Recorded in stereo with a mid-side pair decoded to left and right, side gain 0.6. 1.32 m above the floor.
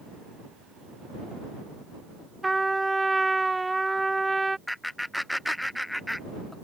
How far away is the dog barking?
I don't hear a dog barking.